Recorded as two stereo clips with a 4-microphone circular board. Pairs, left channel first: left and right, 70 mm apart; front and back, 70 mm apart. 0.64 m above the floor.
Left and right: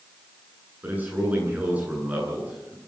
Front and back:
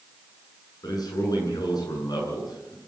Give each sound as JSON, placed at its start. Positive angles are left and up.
{"t": 0.8, "sound": "a man speaking", "azimuth_deg": -25, "distance_m": 9.5}